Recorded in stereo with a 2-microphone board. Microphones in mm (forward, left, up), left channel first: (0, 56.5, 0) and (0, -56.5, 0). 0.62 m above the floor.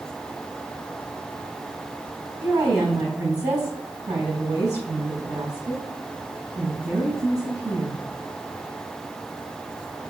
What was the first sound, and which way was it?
A woman speaking, 35° right (ahead or behind).